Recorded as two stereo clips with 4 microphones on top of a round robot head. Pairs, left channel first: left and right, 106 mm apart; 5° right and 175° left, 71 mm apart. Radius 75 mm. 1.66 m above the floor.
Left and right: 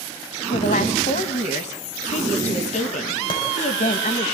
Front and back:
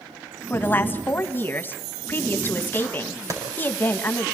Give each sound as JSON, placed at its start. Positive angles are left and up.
{"t": 0.5, "sound": "a woman speaking", "azimuth_deg": 60, "distance_m": 2.0}
{"t": 3.3, "sound": "a clap", "azimuth_deg": 135, "distance_m": 7.0}